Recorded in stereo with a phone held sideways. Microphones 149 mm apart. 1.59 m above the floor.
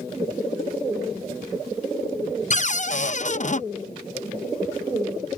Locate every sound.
2.5 s a cupboard door: 50° left (ahead or behind)